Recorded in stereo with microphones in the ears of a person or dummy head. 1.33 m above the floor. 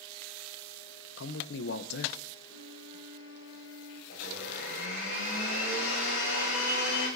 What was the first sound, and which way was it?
A man speaking, 65° left (ahead or behind).